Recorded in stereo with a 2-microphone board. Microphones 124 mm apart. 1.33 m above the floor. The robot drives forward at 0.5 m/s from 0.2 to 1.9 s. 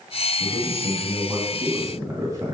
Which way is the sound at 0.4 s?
20° right (ahead or behind).